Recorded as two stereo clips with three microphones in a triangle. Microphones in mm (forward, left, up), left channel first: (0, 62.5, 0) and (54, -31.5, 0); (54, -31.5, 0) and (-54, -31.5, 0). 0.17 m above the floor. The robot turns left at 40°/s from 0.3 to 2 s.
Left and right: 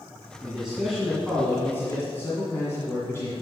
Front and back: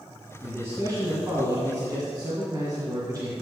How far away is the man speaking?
About 1.9 m.